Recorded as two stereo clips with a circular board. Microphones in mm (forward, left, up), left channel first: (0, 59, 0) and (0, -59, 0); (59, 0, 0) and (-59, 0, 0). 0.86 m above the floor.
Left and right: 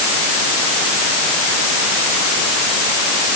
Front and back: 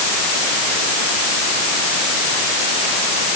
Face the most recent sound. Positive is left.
No sound to turn to.